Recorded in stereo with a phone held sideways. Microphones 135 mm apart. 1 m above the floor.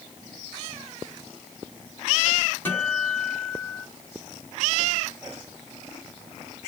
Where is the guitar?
15° left (ahead or behind), 3 m.